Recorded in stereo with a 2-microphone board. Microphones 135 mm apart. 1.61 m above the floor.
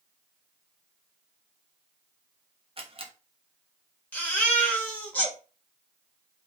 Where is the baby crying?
10° left (ahead or behind), 1.6 m.